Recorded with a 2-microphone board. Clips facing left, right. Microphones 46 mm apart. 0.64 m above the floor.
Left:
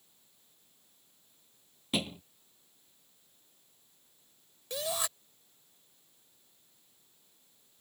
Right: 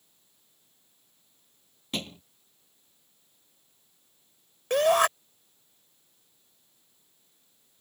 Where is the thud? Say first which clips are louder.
Left 1 dB; 5° left (ahead or behind).